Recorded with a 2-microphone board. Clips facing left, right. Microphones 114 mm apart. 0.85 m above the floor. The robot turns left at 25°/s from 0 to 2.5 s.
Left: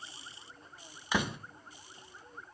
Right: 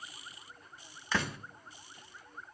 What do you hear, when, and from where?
1.1 s a door slam: 15° left (ahead or behind), 1.1 m; by 1.4 s 20° left (ahead or behind), 1.1 m